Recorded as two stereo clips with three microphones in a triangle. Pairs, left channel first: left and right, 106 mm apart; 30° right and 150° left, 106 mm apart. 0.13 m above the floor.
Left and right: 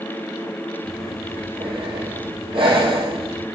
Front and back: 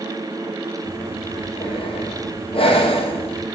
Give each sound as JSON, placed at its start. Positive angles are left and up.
{"t": 0.8, "sound": "breathing", "azimuth_deg": -55, "distance_m": 1.6}